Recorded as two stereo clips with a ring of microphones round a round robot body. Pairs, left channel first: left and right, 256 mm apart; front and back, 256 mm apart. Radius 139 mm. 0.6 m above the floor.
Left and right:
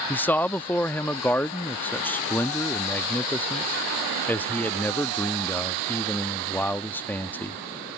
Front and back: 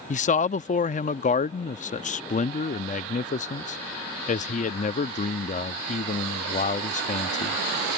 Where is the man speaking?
15° left.